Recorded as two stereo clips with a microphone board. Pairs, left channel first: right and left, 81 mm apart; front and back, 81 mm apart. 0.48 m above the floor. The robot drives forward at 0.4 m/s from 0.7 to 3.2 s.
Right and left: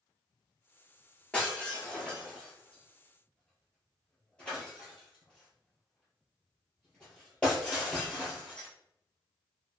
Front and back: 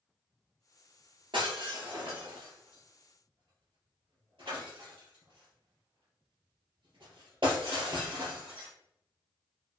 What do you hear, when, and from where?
1.3 s breaking glass: 170° right, 3.5 m